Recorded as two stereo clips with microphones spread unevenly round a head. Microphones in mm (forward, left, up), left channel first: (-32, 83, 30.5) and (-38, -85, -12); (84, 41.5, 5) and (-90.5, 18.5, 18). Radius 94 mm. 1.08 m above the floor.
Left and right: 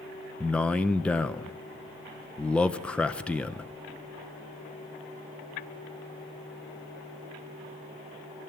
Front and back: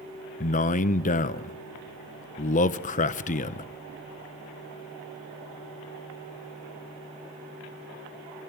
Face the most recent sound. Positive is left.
turn(degrees=-10)